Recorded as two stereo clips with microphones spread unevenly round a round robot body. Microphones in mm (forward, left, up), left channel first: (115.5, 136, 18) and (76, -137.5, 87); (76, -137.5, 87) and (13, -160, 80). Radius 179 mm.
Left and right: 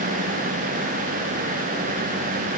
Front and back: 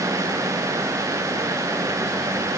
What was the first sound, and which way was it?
Only background noise.